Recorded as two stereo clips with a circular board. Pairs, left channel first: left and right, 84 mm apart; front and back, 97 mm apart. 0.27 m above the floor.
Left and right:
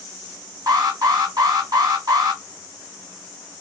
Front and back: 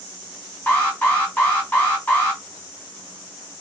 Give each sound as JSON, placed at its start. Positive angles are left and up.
{"t": 0.7, "sound": "an alarm", "azimuth_deg": -70, "distance_m": 1.4}